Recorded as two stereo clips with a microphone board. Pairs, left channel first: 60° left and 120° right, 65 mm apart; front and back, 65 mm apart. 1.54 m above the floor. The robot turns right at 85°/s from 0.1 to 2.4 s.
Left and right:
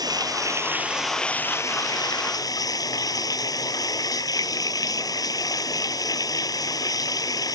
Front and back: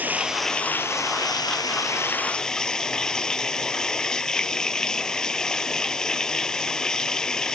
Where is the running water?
115° right; by 7.6 s 80° left.